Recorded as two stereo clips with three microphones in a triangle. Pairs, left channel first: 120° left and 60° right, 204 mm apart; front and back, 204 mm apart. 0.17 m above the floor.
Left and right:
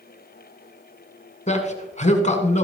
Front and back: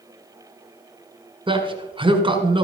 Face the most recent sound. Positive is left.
turn(degrees=135)